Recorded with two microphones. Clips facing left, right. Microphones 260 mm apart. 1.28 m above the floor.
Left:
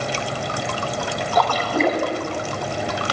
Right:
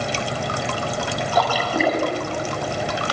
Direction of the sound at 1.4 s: 10° right (ahead or behind).